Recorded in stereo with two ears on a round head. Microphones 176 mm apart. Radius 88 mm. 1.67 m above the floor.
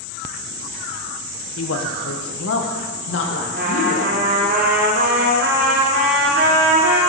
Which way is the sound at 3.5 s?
55° right (ahead or behind).